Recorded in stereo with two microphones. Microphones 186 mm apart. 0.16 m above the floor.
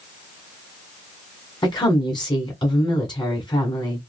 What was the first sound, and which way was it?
A woman speaking, 25° left (ahead or behind).